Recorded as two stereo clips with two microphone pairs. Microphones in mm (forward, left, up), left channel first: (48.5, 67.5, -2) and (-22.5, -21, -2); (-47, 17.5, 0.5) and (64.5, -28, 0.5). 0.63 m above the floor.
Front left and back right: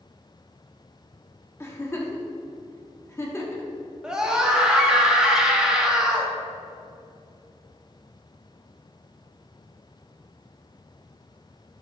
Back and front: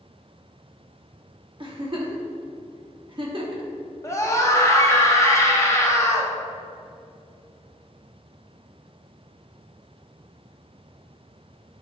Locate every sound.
1.6 s a giggle: 5° right, 1.0 m
4.0 s a scream: 150° left, 1.1 m